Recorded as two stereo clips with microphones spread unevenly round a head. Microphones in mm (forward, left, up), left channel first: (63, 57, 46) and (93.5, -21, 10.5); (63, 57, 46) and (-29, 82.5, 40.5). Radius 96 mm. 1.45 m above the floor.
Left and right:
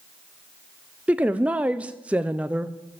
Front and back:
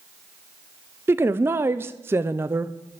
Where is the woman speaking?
130° right, 0.6 m.